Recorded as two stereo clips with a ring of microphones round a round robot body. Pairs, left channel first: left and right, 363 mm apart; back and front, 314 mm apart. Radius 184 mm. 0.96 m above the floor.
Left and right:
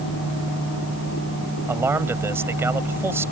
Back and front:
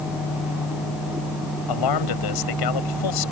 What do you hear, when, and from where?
1.7 s a man speaking: 175° right